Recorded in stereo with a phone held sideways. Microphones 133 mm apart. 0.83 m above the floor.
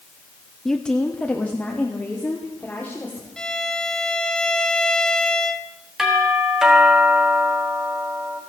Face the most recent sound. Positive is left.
turn(degrees=-5)  # may be behind; listen again after turning